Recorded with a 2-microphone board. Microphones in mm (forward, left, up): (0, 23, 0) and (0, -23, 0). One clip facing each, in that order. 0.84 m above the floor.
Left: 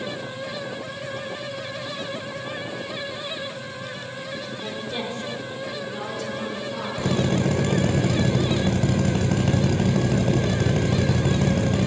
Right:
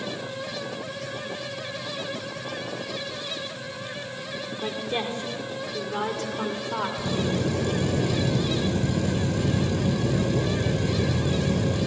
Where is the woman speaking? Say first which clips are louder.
Right 3 dB; 25° right (ahead or behind), 3 m; by 6.9 s 55° right (ahead or behind), 4 m.